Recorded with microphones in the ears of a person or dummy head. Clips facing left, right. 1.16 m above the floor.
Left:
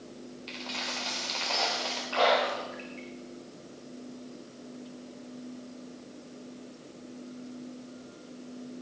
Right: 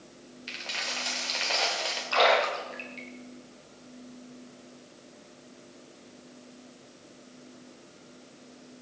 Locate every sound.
0.5 s a dropped coin: 20° right (ahead or behind), 2.5 m
2.1 s a splash: 65° right (ahead or behind), 3.5 m